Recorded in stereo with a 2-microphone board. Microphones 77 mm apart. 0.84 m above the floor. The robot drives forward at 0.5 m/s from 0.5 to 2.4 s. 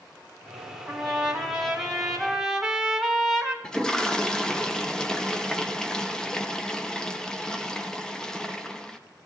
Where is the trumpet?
Centre (ahead or behind), 2.5 m; by 3.5 s 5° right (ahead or behind), 1.8 m.